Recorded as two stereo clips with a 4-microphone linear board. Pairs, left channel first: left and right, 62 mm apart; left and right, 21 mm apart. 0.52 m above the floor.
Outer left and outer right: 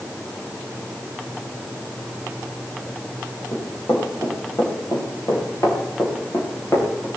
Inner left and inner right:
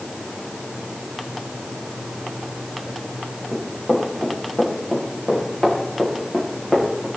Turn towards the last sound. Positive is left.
turn(degrees=40)  # may be behind; listen again after turning